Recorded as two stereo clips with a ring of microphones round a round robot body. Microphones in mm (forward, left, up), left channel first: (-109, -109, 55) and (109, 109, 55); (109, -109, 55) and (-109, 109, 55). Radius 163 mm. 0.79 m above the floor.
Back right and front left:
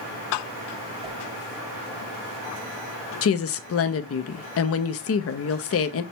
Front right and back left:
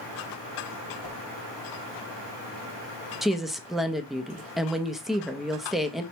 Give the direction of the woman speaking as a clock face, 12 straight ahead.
5 o'clock.